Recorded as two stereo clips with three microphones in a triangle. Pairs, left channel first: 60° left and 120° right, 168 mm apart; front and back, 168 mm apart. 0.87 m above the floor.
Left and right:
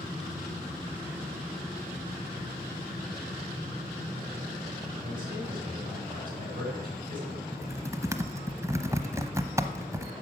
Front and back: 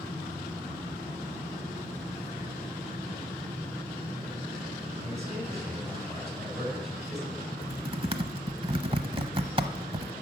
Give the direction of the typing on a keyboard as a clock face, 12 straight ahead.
6 o'clock.